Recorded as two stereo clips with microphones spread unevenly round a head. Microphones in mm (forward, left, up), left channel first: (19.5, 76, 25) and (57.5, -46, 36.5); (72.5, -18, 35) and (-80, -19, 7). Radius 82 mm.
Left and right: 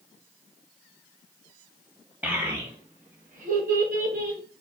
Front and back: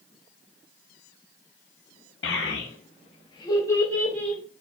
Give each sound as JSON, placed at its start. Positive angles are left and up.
{"t": 2.2, "sound": "a child speaking", "azimuth_deg": 0, "distance_m": 1.2}